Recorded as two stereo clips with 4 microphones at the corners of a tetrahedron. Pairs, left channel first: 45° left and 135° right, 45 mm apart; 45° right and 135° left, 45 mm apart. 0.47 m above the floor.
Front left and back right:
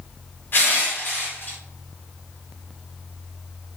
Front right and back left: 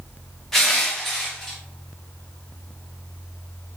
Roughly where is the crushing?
Ahead left.